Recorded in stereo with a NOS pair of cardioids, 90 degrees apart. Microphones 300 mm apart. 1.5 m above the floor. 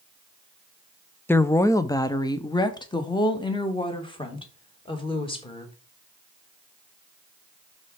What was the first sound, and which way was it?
A woman speaking, 10° left.